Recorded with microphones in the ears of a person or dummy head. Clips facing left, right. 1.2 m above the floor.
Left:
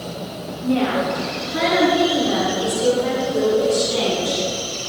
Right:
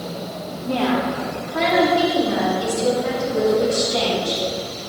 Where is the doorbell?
I don't hear a doorbell.